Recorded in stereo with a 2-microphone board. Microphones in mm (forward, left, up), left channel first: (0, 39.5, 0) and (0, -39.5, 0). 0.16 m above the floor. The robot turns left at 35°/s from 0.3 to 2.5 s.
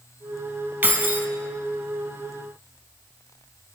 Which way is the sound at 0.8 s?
25° right (ahead or behind).